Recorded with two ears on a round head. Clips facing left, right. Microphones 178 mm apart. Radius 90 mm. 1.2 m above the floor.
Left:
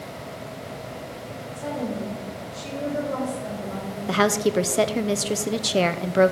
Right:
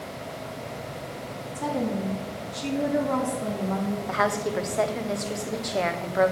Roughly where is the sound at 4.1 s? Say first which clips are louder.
Left 8 dB; left.